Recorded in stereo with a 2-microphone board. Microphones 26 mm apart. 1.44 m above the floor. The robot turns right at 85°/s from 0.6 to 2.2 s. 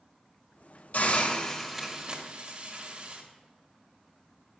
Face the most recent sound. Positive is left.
turn(degrees=-135)